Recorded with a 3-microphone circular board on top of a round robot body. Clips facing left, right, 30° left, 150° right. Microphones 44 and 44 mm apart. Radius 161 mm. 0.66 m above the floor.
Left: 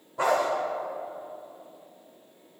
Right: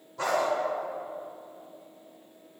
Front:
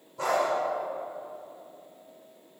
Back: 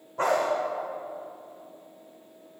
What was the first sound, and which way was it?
A dog barking, 160° left.